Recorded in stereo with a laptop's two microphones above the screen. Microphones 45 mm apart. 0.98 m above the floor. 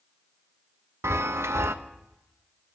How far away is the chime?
About 0.5 m.